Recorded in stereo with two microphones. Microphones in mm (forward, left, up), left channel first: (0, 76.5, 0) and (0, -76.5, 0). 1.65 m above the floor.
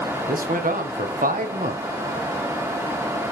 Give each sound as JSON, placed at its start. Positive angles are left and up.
{"t": 0.3, "sound": "a man speaking", "side_deg": -65, "distance_m": 1.4}